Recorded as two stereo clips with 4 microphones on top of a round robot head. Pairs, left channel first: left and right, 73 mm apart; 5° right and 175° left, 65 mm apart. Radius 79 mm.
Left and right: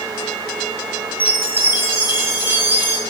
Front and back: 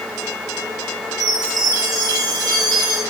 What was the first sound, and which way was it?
A chime, 150° right.